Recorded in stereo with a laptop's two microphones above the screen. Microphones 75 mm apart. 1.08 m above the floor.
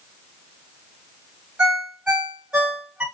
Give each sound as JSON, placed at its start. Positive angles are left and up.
{"t": 1.6, "sound": "a ringtone", "side_deg": -15, "distance_m": 1.3}